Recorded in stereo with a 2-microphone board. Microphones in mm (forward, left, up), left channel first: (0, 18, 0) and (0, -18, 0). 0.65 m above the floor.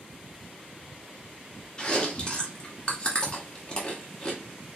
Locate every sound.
1.8 s chewing: 30° left (ahead or behind), 1.2 m